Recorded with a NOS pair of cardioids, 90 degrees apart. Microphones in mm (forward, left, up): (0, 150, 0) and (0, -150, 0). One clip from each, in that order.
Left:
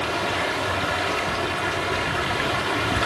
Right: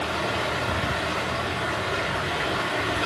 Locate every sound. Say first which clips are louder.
0.0 s running water: left 2 dB; 55° left, 1.6 m